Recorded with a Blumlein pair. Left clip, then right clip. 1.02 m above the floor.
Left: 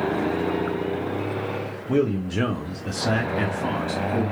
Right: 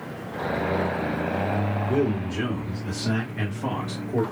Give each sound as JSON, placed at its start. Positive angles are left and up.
{"t": 1.9, "sound": "a man speaking", "azimuth_deg": 65, "distance_m": 0.9}